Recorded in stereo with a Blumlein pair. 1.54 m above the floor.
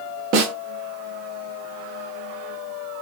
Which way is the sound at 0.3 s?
40° right.